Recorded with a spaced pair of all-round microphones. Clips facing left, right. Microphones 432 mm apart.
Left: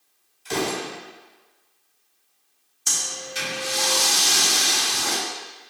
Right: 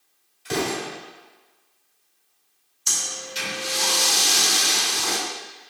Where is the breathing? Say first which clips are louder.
Left 1 dB; 65° left (ahead or behind), 1.3 m.